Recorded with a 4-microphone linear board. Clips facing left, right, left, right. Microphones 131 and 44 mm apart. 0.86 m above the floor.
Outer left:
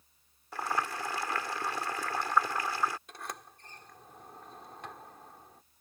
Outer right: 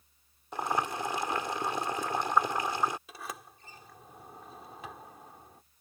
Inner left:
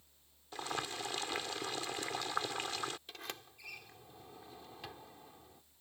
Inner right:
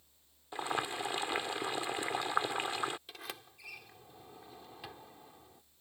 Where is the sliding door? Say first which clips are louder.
Outer right 1 dB, inner right 1 dB; 5° right (ahead or behind).